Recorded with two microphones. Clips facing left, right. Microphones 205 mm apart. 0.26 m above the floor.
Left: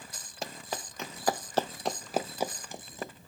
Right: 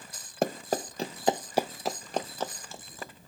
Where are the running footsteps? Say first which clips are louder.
Right 10 dB; 60° right (ahead or behind); by 3.1 s 20° left (ahead or behind).